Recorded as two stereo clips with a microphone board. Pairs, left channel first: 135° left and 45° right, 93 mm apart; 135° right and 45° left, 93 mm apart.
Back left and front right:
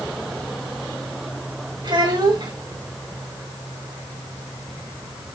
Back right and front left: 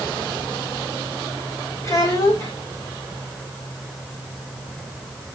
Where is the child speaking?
80° right, 5 m.